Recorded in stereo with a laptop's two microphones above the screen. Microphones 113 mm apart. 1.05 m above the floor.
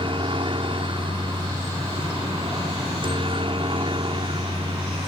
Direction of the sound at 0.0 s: 50° right (ahead or behind).